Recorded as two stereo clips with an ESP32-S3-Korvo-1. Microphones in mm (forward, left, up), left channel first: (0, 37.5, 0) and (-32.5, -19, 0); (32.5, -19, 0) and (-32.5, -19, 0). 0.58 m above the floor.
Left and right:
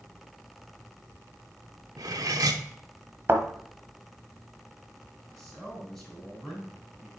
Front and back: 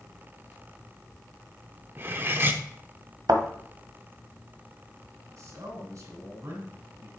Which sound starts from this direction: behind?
A thud, at 3.3 s.